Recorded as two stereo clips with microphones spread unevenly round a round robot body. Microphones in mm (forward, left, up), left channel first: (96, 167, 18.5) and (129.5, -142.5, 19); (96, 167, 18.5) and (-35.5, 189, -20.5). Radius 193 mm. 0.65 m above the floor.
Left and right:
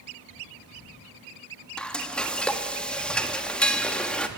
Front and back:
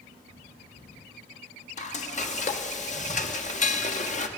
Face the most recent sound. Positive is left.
turn(degrees=10)